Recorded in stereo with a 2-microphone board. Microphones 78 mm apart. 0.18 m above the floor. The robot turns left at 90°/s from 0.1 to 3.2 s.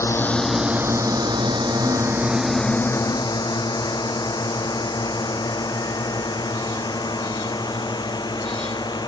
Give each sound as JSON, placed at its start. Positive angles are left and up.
{"t": 0.0, "sound": "a drone", "side_deg": 35}